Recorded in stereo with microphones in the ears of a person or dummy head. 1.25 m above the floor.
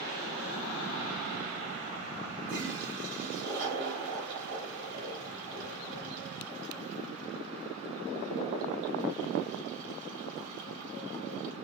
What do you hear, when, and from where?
2.5 s a toilet flushing: 50° right (ahead or behind), 6 m